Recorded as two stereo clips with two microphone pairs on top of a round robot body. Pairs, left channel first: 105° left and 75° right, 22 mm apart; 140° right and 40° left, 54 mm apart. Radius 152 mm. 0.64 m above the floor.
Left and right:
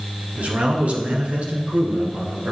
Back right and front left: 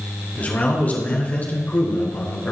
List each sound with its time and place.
0.4 s a man speaking: 80° right, 3 m